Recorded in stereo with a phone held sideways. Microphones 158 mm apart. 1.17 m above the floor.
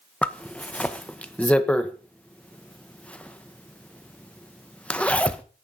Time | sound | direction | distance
0.2 | a zipper | 10° left (ahead or behind) | 1.0 m